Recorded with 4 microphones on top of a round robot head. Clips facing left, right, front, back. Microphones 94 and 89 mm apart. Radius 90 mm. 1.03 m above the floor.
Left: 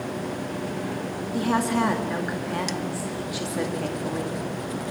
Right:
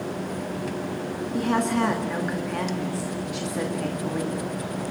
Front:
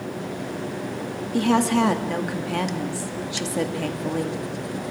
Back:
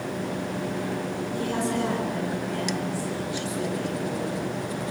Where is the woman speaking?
5° left, 2 m.